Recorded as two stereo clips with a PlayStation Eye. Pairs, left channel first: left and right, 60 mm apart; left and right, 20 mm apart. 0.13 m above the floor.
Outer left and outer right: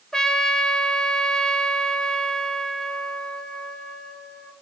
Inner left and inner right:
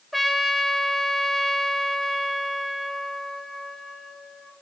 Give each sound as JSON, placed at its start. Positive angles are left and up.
{"t": 0.1, "sound": "a trumpet", "side_deg": 10, "distance_m": 1.3}